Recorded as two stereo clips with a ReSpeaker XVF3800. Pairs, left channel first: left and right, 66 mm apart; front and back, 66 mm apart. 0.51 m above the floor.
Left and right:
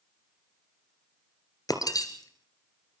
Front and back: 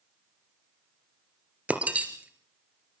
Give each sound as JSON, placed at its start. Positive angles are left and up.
{"t": 1.7, "sound": "breaking glass", "azimuth_deg": 110, "distance_m": 2.5}